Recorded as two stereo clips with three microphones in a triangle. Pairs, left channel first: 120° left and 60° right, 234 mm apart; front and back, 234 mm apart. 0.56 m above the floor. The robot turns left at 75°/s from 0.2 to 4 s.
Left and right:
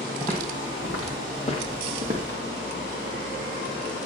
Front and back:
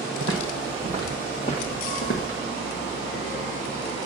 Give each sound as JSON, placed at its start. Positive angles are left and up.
{"t": 0.2, "sound": "footsteps", "azimuth_deg": -170, "distance_m": 1.8}